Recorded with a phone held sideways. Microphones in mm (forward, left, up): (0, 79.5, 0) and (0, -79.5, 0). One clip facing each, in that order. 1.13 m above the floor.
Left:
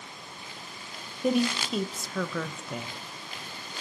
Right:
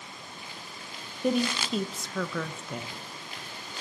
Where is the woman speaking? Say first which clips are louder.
Left 1 dB; centre (ahead or behind), 0.5 m.